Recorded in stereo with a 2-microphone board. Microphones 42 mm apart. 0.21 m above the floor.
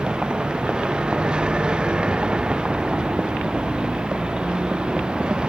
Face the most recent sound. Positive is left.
turn(degrees=-20)  # may be behind; listen again after turning